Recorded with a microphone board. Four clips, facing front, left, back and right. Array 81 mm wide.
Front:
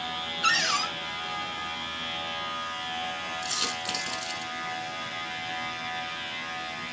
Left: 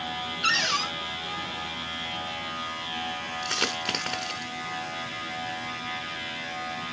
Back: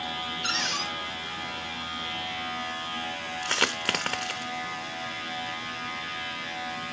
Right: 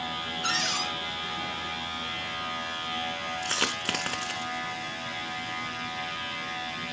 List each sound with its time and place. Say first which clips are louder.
0.4 s a cupboard door: left 4 dB, front 7 dB; 30° left, 2.5 m
3.4 s a dropped coin: left 2 dB, back 5 dB; 175° right, 1.0 m